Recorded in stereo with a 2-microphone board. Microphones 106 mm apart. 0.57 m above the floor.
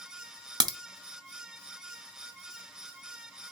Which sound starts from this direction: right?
A crack, at 0.6 s.